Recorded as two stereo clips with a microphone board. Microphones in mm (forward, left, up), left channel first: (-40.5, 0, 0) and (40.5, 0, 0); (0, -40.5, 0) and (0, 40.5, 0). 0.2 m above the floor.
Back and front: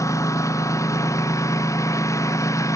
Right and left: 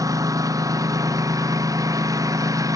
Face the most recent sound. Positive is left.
turn(degrees=130)